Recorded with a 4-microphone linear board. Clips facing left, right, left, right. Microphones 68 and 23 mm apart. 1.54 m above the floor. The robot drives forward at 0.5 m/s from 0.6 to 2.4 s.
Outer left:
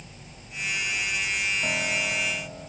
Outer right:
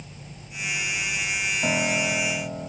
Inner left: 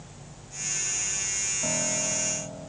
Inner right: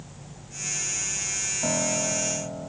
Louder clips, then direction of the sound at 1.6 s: Outer right 4 dB, inner right 5 dB; 20° right (ahead or behind).